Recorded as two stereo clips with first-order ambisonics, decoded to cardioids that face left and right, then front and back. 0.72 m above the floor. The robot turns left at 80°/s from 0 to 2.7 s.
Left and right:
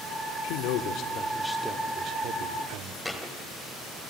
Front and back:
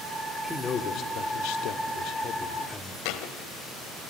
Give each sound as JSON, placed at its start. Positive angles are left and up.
{"t": 0.4, "sound": "a man speaking", "azimuth_deg": 90, "distance_m": 1.4}
{"t": 3.0, "sound": "a thud", "azimuth_deg": 5, "distance_m": 1.3}